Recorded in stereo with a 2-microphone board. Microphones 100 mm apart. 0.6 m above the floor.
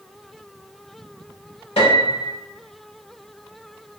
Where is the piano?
75° left (ahead or behind), 1.1 m.